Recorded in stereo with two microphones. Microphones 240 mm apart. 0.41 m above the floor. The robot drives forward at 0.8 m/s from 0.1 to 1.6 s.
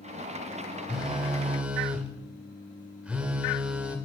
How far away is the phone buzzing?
About 1.7 m.